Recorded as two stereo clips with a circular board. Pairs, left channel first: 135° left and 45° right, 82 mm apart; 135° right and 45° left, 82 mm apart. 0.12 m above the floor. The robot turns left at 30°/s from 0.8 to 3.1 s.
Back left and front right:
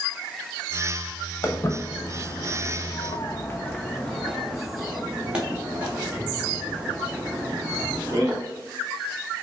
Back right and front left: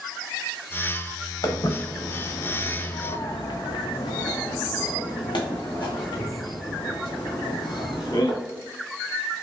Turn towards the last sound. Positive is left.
turn(degrees=-105)